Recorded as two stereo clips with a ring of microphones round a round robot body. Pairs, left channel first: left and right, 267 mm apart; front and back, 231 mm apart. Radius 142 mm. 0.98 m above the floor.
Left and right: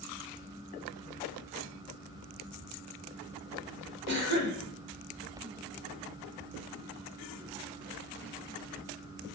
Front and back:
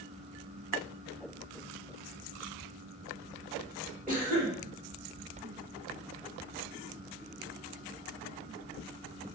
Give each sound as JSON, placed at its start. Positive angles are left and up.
{"t": 4.1, "sound": "a cough", "azimuth_deg": -130, "distance_m": 1.4}